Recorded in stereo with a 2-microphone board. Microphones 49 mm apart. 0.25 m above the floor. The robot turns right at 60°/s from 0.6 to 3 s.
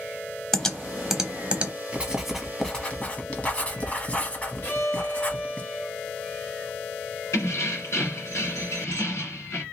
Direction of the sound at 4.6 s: 50° left (ahead or behind).